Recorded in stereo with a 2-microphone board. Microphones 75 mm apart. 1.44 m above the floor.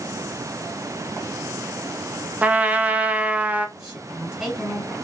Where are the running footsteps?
I don't hear running footsteps.